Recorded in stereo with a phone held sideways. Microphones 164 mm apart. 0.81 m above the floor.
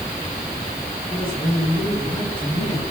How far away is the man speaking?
About 7 m.